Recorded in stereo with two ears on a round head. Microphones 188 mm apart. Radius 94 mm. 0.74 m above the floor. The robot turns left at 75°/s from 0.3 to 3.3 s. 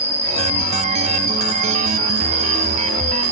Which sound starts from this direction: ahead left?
An insect, at 0.0 s.